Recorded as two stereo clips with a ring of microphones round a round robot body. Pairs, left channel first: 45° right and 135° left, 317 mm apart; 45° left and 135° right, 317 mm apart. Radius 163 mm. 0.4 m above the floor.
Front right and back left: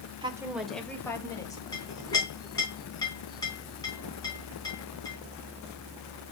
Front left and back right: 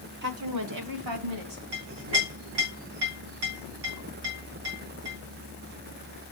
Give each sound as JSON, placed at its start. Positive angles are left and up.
{"t": 0.2, "sound": "a woman speaking", "azimuth_deg": -160, "distance_m": 0.8}
{"t": 1.7, "sound": "a clink", "azimuth_deg": -125, "distance_m": 3.0}